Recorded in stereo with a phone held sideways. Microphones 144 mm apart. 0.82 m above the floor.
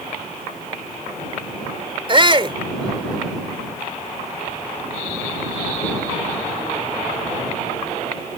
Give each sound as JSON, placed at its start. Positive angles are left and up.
{"t": 2.1, "sound": "a shout", "side_deg": -35}